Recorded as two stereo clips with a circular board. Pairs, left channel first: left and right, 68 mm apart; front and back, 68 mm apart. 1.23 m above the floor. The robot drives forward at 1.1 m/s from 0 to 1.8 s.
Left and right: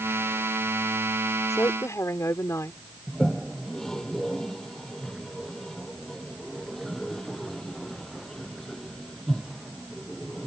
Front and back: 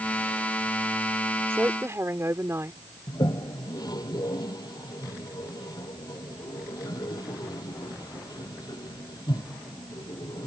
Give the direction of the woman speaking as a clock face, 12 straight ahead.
8 o'clock.